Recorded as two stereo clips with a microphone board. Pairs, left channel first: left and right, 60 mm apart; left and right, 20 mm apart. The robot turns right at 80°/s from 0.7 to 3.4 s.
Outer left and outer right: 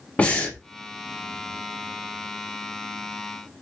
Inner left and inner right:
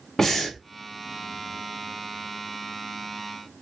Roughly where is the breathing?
Left.